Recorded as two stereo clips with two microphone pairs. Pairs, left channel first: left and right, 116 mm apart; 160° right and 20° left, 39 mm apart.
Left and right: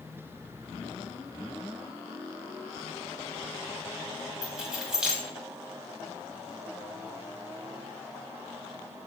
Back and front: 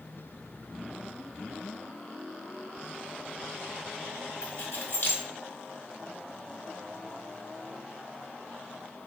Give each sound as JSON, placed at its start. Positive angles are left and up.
{"t": 4.4, "sound": "keys jangling", "azimuth_deg": -175, "distance_m": 1.3}